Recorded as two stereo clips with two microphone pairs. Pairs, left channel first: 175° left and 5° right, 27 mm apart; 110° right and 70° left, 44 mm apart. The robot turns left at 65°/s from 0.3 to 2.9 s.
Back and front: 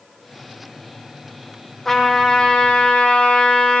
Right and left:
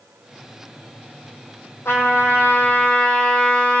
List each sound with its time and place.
1.9 s a trumpet: 100° right, 4.5 m; by 3.8 s 170° right, 4.5 m